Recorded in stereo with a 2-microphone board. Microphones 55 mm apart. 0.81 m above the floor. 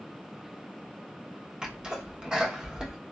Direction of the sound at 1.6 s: 15° right (ahead or behind).